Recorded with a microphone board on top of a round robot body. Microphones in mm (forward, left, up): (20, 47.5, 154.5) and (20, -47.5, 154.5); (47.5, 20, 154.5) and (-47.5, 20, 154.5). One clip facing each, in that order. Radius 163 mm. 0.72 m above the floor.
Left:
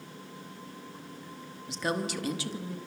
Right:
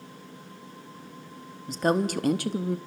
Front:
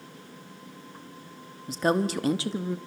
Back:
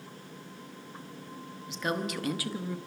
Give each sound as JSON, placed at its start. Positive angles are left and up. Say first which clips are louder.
{"t": 1.7, "sound": "a woman speaking", "louder": "right 7 dB, front 8 dB", "azimuth_deg": -45, "distance_m": 1.5}